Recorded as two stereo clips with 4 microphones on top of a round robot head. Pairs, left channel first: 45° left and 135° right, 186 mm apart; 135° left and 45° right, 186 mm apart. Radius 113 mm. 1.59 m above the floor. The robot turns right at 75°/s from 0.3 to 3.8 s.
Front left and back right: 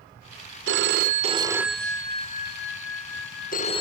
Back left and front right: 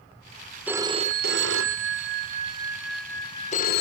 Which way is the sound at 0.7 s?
125° right.